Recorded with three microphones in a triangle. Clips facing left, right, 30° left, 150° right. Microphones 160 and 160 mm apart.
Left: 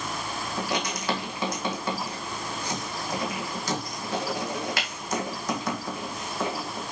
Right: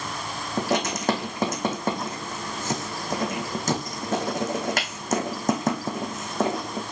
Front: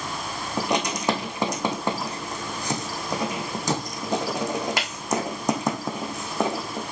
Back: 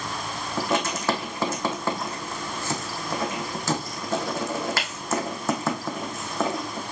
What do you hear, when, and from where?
0.6 s writing: 45° right, 2.5 m